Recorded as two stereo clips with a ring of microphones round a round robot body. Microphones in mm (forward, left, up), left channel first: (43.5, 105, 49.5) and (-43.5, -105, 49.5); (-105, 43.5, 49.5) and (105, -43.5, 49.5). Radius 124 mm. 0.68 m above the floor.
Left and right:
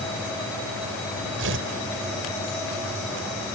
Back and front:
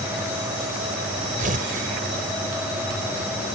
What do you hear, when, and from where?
1.4 s tearing paper: 80° right